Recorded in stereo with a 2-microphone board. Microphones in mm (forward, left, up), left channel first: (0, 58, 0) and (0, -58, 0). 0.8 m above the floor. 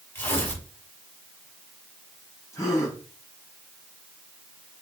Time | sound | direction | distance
0.1 | tearing paper | 20° left (ahead or behind) | 6 m
2.5 | a gasp | 30° left (ahead or behind) | 5 m